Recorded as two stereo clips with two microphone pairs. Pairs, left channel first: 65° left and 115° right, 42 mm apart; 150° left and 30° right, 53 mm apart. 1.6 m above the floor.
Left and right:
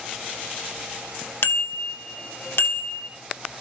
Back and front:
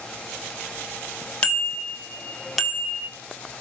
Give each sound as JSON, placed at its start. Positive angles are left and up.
{"t": 1.4, "sound": "a bicycle bell", "azimuth_deg": 80, "distance_m": 2.0}